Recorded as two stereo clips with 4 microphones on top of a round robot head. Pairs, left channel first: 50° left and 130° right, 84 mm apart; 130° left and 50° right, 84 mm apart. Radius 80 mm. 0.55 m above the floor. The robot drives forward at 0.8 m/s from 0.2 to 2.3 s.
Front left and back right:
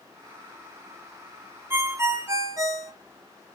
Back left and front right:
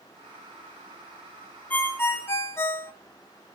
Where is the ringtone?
175° right, 0.8 m.